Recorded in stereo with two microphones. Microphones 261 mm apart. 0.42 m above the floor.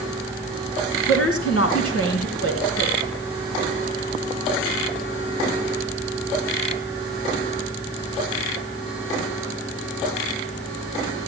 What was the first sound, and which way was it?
A woman speaking, 70° left (ahead or behind).